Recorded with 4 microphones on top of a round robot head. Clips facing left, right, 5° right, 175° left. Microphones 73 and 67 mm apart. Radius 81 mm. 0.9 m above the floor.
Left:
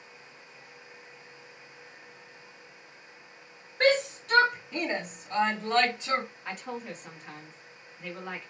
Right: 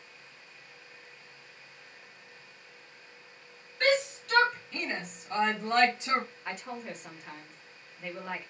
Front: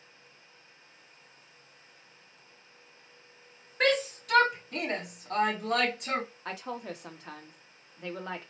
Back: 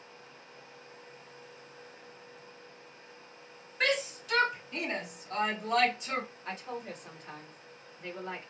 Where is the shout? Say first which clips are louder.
Left 3 dB, front 4 dB; 35° left, 1.7 m; by 6.2 s 35° right, 1.4 m.